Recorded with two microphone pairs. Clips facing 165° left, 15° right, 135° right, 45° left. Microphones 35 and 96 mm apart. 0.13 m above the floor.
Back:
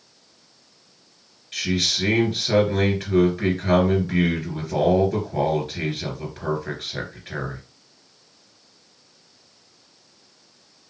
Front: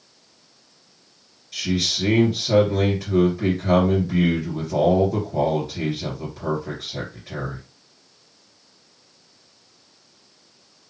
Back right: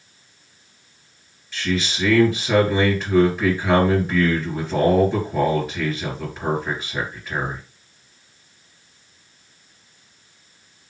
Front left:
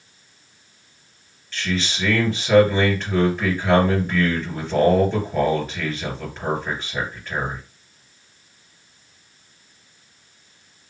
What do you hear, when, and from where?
1.5 s a man speaking: 140° left, 2.5 m